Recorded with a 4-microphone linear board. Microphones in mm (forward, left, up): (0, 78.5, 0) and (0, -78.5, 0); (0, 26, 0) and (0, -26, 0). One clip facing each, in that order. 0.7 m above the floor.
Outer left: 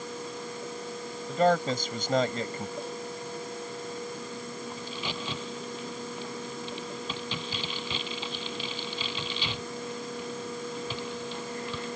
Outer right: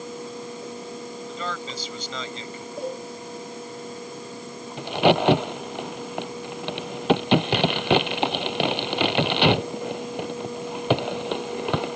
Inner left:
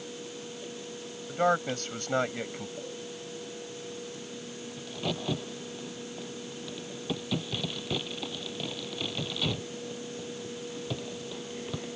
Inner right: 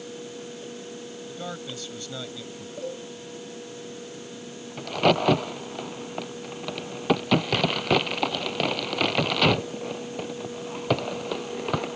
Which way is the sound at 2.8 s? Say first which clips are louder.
Outer right 6 dB, inner right 6 dB; 60° right (ahead or behind).